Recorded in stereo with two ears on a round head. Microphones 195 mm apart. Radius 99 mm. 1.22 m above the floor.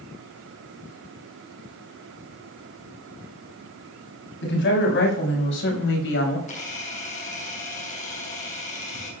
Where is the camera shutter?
35° left (ahead or behind), 5.5 m.